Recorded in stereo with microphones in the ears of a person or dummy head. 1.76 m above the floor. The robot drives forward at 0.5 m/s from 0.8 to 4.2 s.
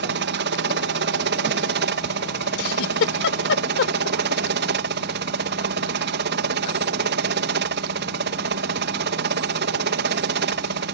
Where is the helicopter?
55° right (ahead or behind).